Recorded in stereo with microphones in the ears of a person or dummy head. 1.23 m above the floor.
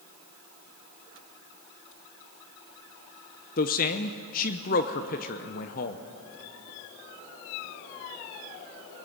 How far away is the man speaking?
About 0.9 m.